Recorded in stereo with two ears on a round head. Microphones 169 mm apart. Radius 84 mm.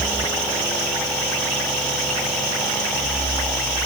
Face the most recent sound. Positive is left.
No sound to turn to.